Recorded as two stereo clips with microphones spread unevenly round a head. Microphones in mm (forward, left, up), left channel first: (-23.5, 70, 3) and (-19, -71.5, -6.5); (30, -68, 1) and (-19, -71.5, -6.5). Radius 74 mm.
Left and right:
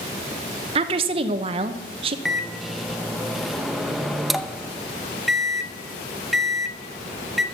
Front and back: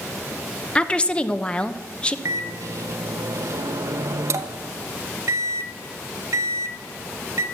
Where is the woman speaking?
70° right, 0.9 m.